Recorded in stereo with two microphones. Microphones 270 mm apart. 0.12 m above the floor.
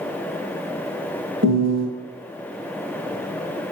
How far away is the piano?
About 3 m.